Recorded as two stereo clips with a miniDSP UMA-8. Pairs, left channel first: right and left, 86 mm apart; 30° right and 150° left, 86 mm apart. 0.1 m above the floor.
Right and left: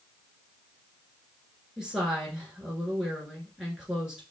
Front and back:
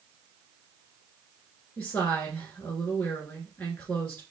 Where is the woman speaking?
15° left, 1.7 m.